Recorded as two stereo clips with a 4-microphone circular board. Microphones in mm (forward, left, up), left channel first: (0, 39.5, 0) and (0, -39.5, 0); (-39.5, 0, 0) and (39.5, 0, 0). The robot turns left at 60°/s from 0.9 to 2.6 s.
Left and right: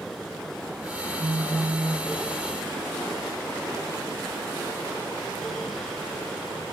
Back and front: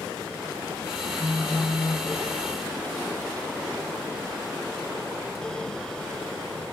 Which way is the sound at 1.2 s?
105° right.